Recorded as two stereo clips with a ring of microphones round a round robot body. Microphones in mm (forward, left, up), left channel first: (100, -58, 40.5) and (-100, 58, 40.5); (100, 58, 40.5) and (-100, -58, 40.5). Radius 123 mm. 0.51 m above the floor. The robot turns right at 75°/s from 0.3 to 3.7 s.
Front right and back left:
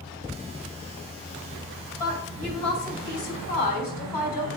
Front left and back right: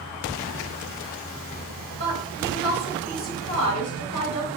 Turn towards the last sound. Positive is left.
turn(degrees=20)